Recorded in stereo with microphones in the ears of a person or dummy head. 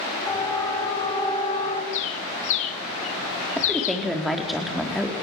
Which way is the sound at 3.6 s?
Centre (ahead or behind).